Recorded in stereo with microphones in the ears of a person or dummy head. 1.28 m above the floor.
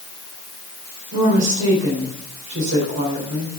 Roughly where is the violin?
No violin in this recording.